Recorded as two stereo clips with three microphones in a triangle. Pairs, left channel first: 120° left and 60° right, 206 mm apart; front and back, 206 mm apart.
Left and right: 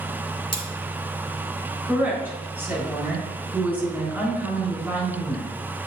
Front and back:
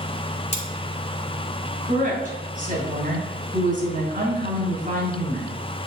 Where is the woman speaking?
140° right, 4 m.